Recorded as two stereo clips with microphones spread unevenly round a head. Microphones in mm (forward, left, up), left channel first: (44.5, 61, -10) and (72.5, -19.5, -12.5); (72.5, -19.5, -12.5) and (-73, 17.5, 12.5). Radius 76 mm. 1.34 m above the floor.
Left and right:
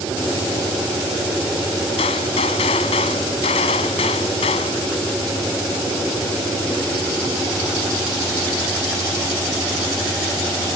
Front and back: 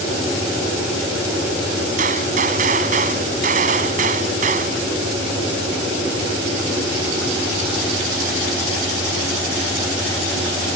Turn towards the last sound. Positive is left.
turn(degrees=125)